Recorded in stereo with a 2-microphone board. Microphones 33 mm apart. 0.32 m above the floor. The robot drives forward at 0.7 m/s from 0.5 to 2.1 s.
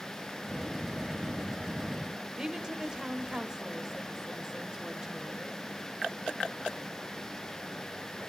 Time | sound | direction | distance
2.4 | a woman speaking | 15° right (ahead or behind) | 1.0 m